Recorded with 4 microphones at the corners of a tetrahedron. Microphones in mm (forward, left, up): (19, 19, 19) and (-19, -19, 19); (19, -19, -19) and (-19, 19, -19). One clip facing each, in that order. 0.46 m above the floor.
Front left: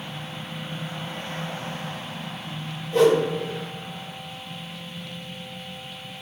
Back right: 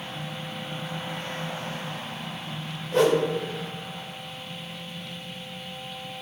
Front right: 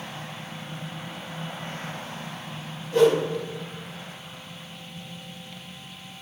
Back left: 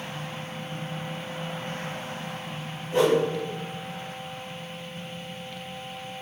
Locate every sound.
2.9 s a whoosh: 165° right, 1.2 m